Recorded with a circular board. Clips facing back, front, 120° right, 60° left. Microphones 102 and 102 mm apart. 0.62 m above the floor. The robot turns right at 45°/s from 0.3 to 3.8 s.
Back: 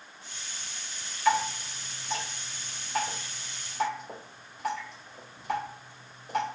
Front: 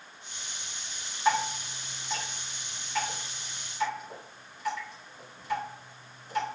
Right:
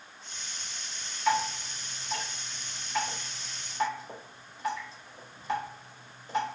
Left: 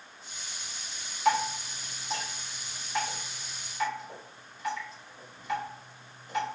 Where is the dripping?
65° left, 2.5 m; by 6.5 s straight behind, 2.5 m.